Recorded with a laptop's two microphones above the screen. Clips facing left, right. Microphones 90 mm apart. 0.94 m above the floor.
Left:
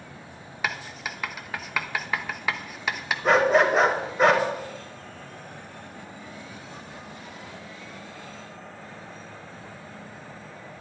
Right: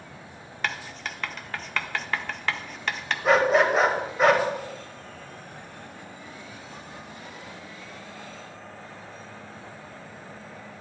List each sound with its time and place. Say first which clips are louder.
0.6 s writing: left 1 dB; 5° left (ahead or behind), 0.5 m
3.2 s a dog barking: left 1 dB; centre (ahead or behind), 1.0 m